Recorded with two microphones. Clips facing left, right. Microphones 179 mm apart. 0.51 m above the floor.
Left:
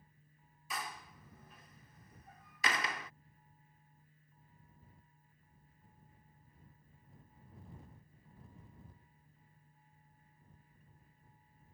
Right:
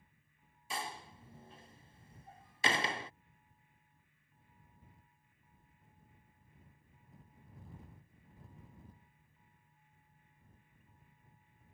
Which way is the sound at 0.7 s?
30° right (ahead or behind).